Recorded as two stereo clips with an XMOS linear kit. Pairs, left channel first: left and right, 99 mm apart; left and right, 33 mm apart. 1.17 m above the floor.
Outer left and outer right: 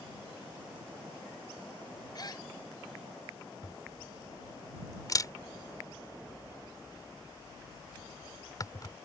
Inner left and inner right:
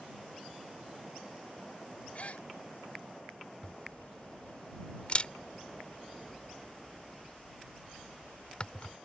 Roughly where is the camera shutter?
Left.